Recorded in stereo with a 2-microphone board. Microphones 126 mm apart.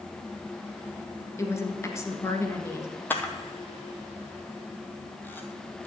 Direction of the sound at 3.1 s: 15° left (ahead or behind).